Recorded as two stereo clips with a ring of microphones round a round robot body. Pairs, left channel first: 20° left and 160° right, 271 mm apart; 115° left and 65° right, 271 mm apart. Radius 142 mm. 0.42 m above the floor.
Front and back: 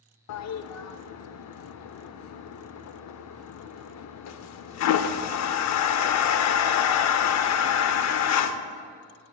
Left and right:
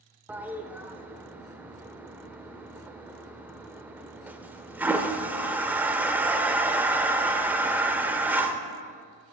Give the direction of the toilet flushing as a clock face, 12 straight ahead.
11 o'clock.